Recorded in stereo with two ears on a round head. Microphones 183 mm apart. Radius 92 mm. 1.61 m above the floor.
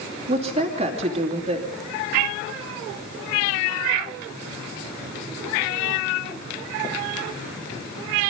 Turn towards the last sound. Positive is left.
turn(degrees=-30)  # may be behind; listen again after turning